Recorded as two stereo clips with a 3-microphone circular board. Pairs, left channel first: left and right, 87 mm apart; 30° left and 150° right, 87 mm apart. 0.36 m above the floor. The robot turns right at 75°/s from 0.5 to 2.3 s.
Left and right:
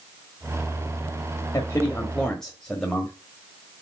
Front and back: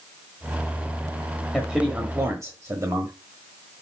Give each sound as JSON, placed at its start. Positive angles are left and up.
{"t": 1.5, "sound": "a man speaking", "azimuth_deg": 115, "distance_m": 1.3}